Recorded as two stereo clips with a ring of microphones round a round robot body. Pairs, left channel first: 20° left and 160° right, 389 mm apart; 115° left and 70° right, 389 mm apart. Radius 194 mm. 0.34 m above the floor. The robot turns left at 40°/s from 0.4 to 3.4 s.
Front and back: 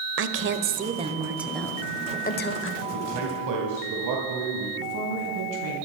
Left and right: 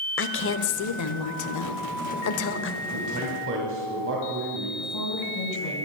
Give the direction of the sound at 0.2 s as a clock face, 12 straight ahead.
7 o'clock.